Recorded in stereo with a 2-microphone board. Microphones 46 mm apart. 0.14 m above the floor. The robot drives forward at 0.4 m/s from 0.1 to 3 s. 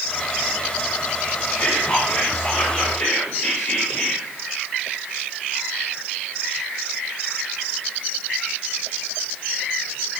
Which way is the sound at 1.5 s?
50° left (ahead or behind).